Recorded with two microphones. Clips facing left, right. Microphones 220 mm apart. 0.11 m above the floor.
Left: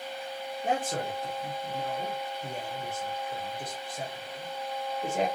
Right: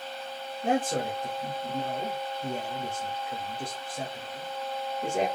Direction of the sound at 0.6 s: 30° right (ahead or behind).